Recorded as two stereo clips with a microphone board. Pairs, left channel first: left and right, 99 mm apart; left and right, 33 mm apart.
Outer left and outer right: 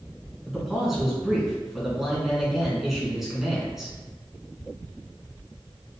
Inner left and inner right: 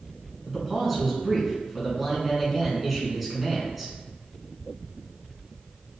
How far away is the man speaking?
About 1.6 m.